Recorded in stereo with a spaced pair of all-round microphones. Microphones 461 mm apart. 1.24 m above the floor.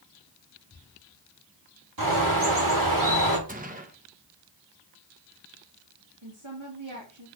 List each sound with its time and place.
2.0 s a bird: 45° right (ahead or behind), 2.0 m
3.5 s a gunshot: 20° right (ahead or behind), 1.0 m
6.2 s a woman speaking: 80° right, 2.5 m